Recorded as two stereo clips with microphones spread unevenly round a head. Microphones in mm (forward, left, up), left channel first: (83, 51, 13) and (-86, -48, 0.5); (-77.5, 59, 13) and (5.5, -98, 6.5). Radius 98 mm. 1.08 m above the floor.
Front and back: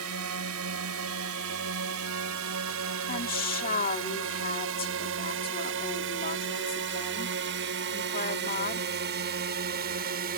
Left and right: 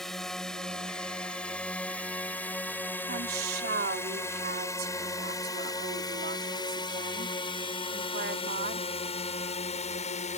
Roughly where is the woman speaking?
Ahead.